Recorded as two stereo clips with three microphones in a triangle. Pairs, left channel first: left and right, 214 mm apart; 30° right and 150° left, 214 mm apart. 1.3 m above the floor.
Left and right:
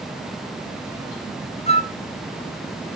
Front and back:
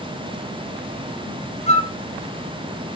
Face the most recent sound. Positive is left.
turn(degrees=25)